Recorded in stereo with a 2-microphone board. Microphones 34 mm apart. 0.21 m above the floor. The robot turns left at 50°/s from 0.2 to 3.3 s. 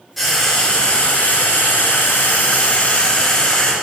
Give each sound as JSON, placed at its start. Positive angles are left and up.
{"t": 0.2, "sound": "frying", "azimuth_deg": 175, "distance_m": 3.5}